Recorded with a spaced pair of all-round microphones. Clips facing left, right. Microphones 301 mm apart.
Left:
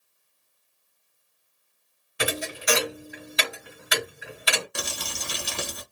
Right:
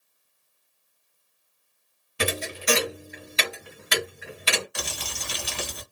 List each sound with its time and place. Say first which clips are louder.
2.2 s a thud: right 1 dB; 35° right (ahead or behind), 1.7 m
4.8 s crumpling: left 1 dB; 55° left (ahead or behind), 1.0 m